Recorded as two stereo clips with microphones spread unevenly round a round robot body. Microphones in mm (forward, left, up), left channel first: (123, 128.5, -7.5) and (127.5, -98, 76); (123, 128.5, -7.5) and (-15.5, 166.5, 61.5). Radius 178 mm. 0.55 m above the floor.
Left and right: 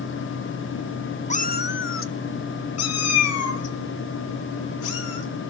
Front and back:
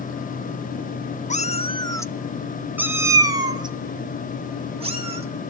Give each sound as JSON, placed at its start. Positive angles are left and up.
{"t": 1.3, "sound": "a cat meowing", "azimuth_deg": 30, "distance_m": 0.8}